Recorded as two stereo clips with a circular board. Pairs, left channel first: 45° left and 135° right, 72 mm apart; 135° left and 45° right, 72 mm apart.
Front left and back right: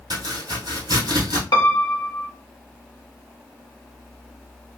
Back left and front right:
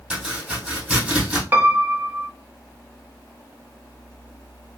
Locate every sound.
0.1 s chopping: 125° right, 2.5 m
1.5 s a piano: 20° left, 0.6 m